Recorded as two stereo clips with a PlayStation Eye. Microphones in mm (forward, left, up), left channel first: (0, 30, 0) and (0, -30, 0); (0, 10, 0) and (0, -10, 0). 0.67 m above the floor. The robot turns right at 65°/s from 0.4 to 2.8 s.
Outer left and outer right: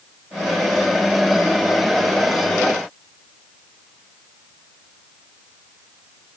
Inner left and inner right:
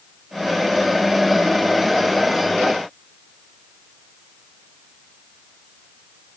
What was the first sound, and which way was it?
Only background noise.